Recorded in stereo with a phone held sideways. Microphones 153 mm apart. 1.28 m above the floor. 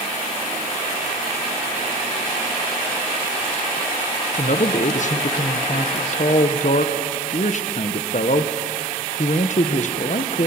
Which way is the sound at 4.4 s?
55° left (ahead or behind).